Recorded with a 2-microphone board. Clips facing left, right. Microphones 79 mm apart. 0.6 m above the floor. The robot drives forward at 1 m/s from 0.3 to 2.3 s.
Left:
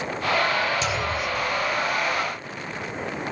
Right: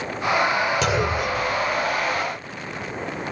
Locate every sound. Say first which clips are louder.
0.8 s a clunk: right 4 dB; 65° right (ahead or behind); by 2.2 s 60° right (ahead or behind)